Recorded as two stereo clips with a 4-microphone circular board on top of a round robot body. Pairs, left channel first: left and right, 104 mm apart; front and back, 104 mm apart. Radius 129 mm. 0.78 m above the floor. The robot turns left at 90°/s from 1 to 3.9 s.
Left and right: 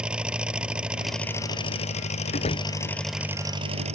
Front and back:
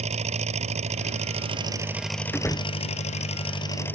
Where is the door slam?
80° left; by 2.7 s 45° left.